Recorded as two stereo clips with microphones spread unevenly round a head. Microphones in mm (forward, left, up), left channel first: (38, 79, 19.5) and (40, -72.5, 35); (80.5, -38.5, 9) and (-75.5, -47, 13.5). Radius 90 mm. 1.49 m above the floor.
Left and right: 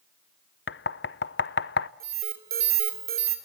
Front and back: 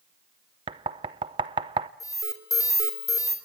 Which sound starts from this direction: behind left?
Knocking, at 0.7 s.